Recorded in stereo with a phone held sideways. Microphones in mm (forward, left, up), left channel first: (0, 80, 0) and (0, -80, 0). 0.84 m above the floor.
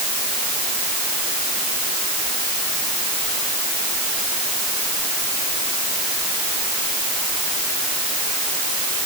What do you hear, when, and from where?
Only background noise.